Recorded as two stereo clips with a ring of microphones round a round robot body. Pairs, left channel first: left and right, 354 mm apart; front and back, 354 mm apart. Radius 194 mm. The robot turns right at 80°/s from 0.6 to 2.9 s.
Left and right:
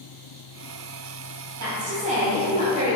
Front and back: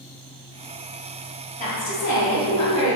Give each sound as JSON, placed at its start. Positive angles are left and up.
{"t": 1.6, "sound": "a woman speaking", "azimuth_deg": -65, "distance_m": 1.2}